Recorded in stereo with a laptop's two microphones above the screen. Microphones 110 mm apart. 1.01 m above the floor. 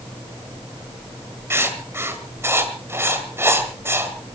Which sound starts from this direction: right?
Writing, at 1.5 s.